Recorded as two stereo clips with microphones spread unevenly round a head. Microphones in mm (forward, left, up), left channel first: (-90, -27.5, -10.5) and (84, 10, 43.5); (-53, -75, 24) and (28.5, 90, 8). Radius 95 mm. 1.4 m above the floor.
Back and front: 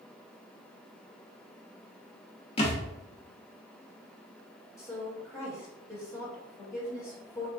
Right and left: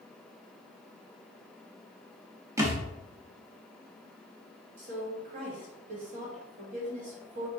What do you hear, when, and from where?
2.6 s a thud: 130° left, 0.8 m
4.8 s a woman speaking: 115° left, 1.8 m